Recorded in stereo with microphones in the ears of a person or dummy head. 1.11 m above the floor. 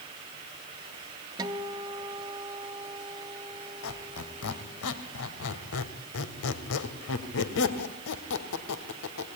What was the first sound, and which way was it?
A guitar, 15° right (ahead or behind).